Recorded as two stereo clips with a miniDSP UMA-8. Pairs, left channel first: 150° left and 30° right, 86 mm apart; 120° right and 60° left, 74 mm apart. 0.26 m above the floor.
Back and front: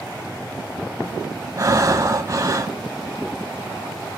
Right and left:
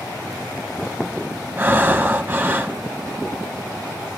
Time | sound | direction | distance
1.6 | breathing | 5° left | 0.8 m